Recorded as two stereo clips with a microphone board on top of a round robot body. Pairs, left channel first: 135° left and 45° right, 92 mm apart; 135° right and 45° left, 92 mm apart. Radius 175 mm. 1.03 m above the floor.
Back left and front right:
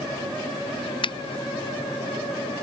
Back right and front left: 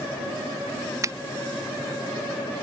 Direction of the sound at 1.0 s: 100° left.